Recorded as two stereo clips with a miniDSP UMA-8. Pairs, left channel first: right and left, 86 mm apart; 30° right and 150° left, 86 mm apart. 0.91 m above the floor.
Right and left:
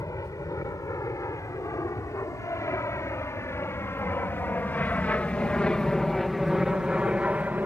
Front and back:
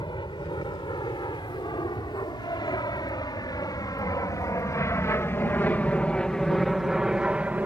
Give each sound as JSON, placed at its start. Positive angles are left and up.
{"t": 0.0, "sound": "an aircraft", "azimuth_deg": -45}